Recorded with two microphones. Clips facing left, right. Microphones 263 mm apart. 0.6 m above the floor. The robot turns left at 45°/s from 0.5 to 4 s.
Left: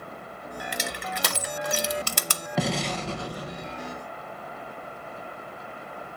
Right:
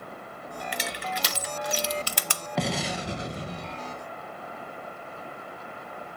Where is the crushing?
45° left (ahead or behind), 0.5 m; by 2.4 s 40° left (ahead or behind), 0.5 m.